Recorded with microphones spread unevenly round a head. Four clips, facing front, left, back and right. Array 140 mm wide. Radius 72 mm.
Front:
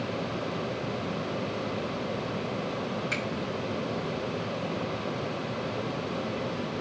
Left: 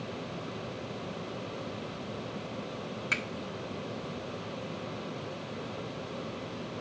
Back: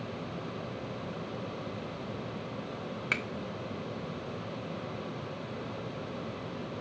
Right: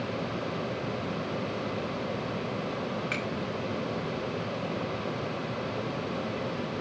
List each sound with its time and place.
3.1 s a finger snap: 175° right, 1.3 m